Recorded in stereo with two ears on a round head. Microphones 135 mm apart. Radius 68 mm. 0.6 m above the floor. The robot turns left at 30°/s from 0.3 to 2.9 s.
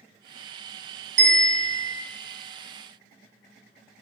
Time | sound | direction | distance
1.2 | a bell | 45° right (ahead or behind) | 0.7 m